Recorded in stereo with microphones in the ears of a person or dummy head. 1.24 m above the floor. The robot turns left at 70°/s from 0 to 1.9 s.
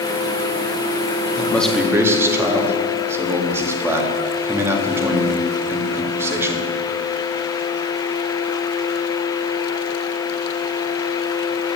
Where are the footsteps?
I don't hear footsteps.